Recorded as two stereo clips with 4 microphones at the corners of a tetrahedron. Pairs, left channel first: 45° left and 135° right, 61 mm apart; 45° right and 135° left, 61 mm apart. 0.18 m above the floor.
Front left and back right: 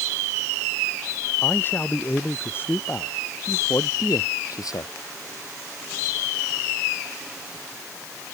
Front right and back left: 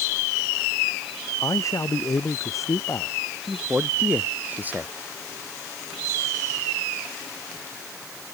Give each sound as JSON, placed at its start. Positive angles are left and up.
{"t": 1.4, "sound": "a man speaking", "azimuth_deg": -10}
{"t": 3.5, "sound": "a man speaking", "azimuth_deg": 70}